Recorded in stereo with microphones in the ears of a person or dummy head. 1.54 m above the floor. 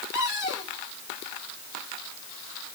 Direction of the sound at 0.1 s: 15° right (ahead or behind).